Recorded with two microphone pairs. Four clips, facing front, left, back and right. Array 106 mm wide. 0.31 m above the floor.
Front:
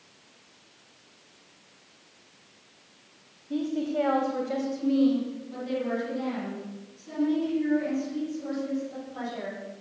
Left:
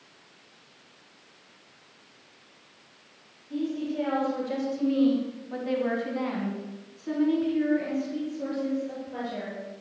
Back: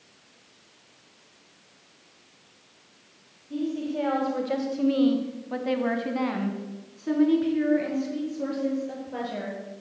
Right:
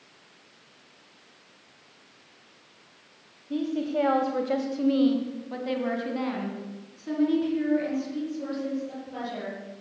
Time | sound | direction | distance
3.5 | a woman speaking | 50° right | 2 m